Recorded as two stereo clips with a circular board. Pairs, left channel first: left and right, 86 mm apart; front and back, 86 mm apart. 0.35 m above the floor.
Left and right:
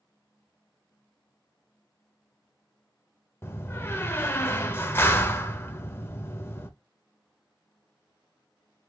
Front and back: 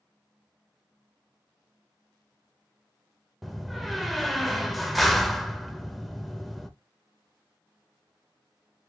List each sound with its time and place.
3.4 s a door slam: 90° left, 0.6 m